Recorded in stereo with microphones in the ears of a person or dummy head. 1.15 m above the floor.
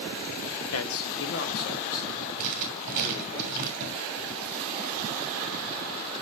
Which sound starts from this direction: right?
Writing, at 2.4 s.